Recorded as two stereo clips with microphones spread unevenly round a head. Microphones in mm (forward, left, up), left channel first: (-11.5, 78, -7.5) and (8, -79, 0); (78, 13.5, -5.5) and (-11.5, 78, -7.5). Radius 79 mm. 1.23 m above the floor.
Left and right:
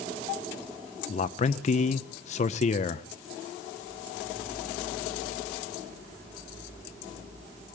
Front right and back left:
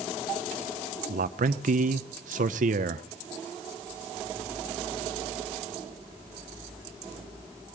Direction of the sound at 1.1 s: 145° left.